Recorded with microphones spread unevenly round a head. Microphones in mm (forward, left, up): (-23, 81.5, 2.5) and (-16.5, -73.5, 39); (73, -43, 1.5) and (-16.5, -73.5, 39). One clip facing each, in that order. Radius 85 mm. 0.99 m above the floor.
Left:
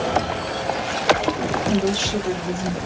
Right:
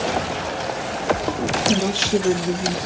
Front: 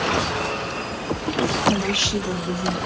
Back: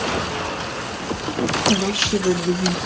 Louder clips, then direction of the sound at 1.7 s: Right 1 dB, back 2 dB; 80° right.